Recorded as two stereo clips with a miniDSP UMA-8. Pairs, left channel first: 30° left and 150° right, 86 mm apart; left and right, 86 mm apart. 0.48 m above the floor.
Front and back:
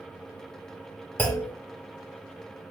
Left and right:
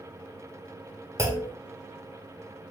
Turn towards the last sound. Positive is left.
turn(degrees=-35)